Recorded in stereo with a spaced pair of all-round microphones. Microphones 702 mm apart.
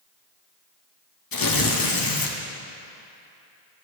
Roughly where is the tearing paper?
Left.